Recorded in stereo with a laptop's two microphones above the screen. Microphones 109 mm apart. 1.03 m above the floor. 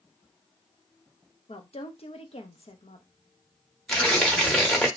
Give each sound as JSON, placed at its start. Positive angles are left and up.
{"t": 1.5, "sound": "a woman speaking", "side_deg": 65, "distance_m": 0.6}
{"t": 3.9, "sound": "tearing paper", "side_deg": 5, "distance_m": 0.9}